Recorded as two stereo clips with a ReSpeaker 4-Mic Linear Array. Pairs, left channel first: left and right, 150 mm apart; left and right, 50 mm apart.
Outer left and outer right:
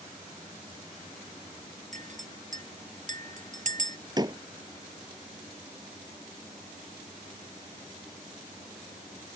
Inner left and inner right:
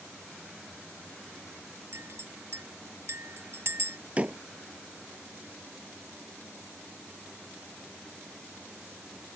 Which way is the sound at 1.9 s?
55° right (ahead or behind).